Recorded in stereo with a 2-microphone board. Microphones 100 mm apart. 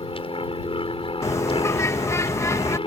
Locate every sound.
0.0 s an aircraft: 65° left (ahead or behind)
1.2 s a bird: 30° left (ahead or behind)